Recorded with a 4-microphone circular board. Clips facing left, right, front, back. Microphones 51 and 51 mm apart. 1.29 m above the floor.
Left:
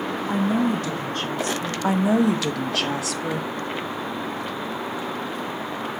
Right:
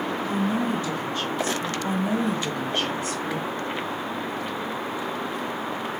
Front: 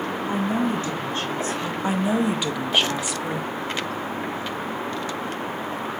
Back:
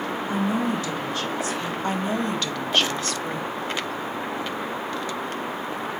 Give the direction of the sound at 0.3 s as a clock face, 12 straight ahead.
10 o'clock.